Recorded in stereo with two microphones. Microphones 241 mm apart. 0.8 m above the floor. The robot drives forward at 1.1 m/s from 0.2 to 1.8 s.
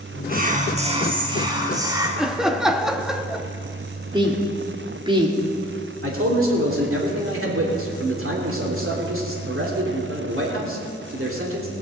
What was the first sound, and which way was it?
Whispering, 40° right (ahead or behind).